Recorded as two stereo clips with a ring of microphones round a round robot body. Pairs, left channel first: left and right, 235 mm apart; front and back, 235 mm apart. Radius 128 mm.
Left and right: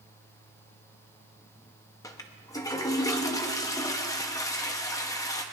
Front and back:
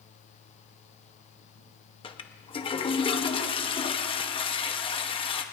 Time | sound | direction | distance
2.0 | a toilet flushing | 30° left | 0.9 m